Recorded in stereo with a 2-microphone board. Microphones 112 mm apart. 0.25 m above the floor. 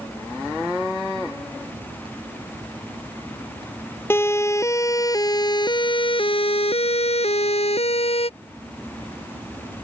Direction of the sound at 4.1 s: 20° left (ahead or behind).